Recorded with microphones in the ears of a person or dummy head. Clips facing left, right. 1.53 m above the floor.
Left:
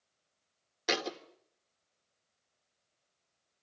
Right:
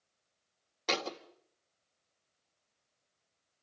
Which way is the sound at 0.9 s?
15° left (ahead or behind).